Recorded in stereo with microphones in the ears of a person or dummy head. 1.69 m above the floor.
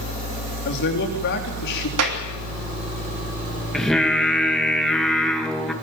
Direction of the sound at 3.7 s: 5° left (ahead or behind).